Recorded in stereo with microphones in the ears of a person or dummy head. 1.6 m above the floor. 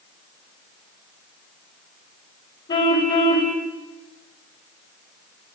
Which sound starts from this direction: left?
A car horn, at 2.7 s.